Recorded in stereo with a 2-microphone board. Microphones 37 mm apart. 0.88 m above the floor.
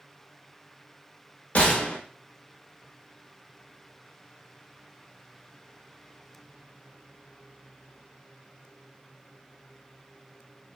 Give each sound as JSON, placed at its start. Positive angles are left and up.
{"t": 1.6, "sound": "a gunshot", "side_deg": 45, "distance_m": 0.7}